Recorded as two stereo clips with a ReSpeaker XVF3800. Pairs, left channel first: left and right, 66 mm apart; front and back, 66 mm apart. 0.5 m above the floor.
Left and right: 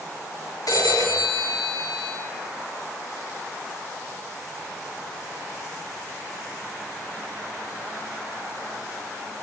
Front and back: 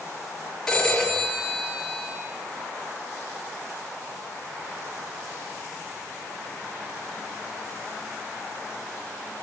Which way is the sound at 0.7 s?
85° left.